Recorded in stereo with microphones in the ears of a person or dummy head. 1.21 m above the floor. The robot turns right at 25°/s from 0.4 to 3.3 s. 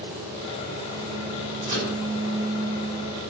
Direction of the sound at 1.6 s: 40° right (ahead or behind).